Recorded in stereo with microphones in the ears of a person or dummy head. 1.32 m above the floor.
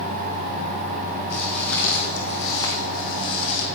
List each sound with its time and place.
1.3 s footsteps: 5° left (ahead or behind), 3 m; by 3.7 s 35° left (ahead or behind), 3 m